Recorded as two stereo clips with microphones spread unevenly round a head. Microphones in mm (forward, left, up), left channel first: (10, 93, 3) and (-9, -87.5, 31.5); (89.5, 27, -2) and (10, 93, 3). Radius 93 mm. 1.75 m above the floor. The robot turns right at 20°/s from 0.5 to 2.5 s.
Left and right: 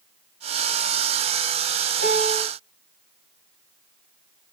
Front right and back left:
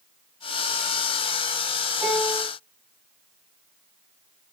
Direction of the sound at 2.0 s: 60° left.